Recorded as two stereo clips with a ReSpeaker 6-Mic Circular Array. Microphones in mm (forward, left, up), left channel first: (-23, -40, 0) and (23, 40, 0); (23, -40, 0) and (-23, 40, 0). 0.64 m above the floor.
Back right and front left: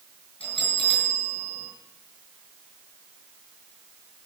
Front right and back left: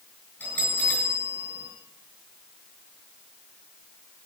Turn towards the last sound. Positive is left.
turn(degrees=-130)